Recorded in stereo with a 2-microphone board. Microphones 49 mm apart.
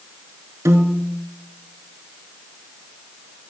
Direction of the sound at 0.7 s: 85° right.